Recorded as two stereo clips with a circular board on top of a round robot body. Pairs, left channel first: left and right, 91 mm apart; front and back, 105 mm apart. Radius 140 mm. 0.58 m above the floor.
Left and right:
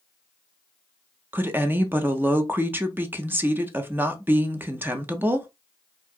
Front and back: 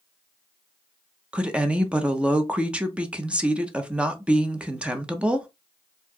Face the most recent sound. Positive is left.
turn(degrees=-115)